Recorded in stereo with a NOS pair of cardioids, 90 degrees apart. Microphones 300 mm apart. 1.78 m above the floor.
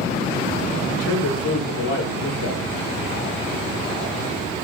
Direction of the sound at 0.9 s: 65° left.